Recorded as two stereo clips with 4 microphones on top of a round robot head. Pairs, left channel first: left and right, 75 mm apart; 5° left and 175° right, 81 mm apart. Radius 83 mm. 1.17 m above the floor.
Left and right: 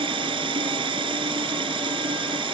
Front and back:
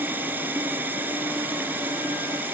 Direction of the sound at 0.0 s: 100° right.